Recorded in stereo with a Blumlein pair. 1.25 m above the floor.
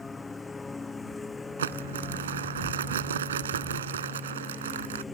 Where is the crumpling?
65° right.